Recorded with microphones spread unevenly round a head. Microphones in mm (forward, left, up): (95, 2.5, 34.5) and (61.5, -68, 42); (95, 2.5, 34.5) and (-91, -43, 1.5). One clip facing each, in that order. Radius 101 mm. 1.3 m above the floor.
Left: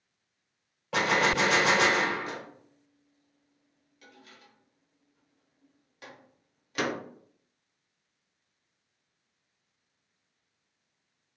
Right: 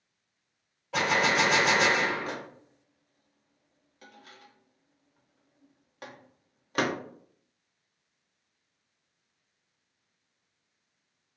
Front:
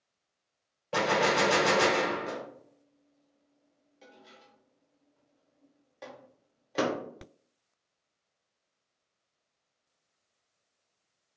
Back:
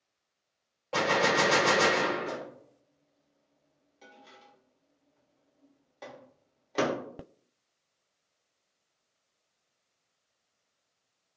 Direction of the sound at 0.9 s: 80° left.